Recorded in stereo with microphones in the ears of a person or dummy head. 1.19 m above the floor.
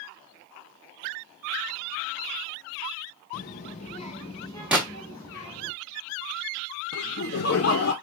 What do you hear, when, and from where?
3.3 s a child speaking: 50° left (ahead or behind), 0.5 m; by 5.7 s 20° left (ahead or behind), 1.6 m
4.7 s a gunshot: 5° right (ahead or behind), 1.0 m
6.9 s laughter: 55° left (ahead or behind), 0.5 m